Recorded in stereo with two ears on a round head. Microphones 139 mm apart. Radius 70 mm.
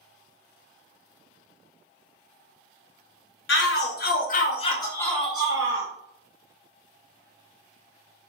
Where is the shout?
75° left (ahead or behind), 1.0 m; by 5.9 s 25° right (ahead or behind), 0.8 m.